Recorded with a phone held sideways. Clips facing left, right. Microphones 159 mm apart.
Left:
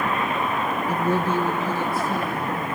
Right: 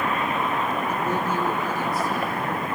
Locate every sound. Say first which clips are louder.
0.9 s a woman speaking: left 3 dB; 30° left (ahead or behind), 1.4 m; by 2.8 s 25° left (ahead or behind), 3.5 m